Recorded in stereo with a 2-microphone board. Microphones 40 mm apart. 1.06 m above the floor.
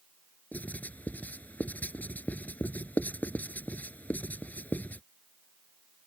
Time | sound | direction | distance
0.5 | writing | 40° left (ahead or behind) | ?